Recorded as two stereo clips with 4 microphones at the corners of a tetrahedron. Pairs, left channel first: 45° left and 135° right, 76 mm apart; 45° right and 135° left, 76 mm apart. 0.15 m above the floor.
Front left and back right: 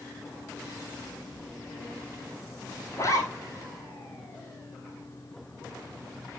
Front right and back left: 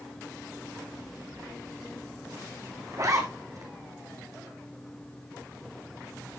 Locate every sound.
2.9 s a zipper: 95° left, 3.5 m